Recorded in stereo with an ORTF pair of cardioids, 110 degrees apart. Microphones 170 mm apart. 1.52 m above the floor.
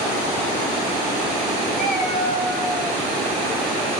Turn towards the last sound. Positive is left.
turn(degrees=5)